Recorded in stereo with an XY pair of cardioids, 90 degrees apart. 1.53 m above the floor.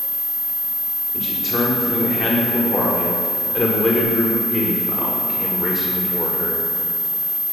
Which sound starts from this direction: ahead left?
A man speaking, at 1.1 s.